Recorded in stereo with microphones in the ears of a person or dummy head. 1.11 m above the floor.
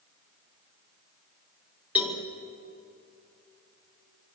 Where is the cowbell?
10° right (ahead or behind), 2.0 m.